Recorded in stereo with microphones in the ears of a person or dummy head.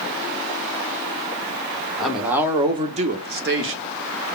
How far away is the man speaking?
About 0.9 m.